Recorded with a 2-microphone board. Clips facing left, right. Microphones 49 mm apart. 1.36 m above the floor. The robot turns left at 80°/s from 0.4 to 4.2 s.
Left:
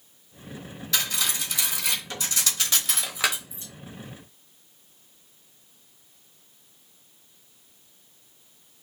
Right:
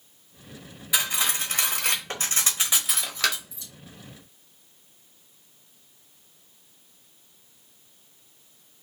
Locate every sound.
0.9 s cutlery clinking: 15° right (ahead or behind), 0.9 m; by 3.7 s 40° left (ahead or behind), 0.9 m